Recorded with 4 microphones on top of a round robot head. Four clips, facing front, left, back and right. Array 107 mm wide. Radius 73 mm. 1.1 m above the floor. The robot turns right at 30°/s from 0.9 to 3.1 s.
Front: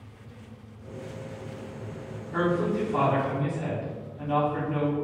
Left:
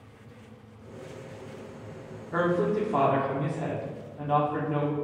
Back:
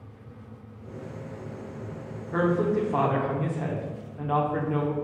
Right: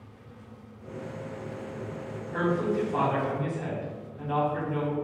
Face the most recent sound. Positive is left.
turn(degrees=155)